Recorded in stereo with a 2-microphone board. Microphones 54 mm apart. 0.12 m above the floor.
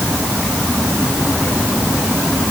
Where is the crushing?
I don't hear crushing.